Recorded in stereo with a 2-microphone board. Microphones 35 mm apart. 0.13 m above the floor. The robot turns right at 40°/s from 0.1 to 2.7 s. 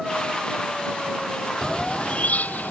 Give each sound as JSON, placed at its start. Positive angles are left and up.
{"t": 1.6, "sound": "a bird", "azimuth_deg": 25}